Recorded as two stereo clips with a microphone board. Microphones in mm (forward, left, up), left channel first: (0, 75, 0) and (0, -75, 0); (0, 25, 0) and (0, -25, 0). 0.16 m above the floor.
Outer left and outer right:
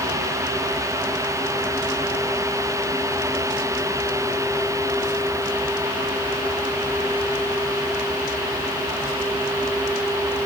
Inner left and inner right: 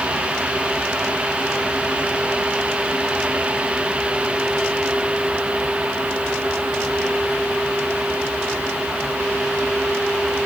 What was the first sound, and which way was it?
Only background noise.